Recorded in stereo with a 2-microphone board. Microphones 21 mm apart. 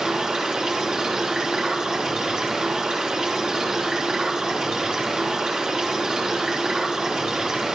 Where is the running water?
40° right (ahead or behind), 3.5 m.